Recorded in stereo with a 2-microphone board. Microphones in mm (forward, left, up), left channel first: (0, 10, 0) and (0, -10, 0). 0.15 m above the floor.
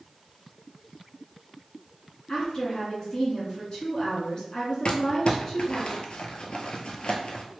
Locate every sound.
2.3 s a woman speaking: 35° left (ahead or behind), 2.0 m
4.8 s crumpling: 60° left (ahead or behind), 0.7 m